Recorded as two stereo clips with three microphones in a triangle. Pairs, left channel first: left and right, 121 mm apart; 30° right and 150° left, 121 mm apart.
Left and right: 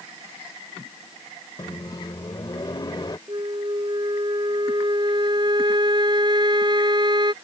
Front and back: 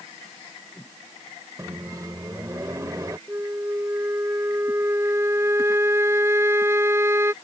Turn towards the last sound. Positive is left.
turn(degrees=-140)